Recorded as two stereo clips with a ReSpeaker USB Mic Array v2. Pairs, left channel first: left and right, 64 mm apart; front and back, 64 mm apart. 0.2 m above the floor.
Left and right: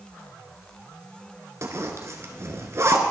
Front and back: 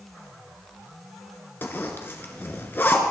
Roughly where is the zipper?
Ahead right.